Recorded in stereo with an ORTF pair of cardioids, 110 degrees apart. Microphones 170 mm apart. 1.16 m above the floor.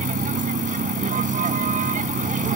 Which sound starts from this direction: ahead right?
A vehicle, at 0.0 s.